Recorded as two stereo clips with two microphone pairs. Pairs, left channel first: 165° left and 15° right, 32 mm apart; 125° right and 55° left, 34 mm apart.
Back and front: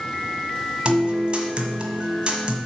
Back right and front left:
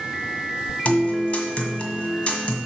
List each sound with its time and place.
0.8 s a guitar: 70° right, 1.5 m